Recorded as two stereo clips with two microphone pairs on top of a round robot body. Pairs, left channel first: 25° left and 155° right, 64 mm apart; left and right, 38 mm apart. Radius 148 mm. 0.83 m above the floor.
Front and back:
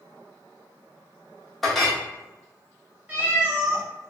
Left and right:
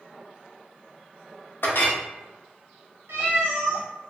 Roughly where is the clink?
Left.